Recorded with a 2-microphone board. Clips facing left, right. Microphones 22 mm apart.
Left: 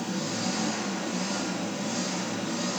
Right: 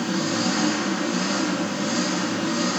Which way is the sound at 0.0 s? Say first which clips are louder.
Right 7 dB; 50° right (ahead or behind).